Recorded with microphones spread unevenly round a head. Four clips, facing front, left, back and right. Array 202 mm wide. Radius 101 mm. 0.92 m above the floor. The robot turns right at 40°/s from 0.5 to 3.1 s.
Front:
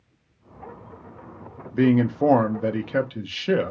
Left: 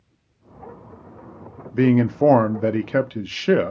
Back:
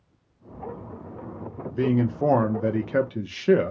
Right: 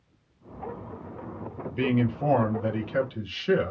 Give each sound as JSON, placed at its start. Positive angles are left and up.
{"t": 1.7, "sound": "a man speaking", "azimuth_deg": 55, "distance_m": 0.6}